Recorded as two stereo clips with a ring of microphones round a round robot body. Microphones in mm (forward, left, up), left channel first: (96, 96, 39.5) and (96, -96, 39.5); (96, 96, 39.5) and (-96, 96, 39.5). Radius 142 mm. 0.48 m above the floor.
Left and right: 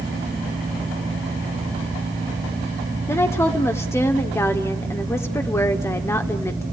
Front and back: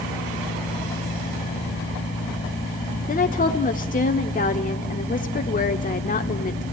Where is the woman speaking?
20° left, 1.3 m.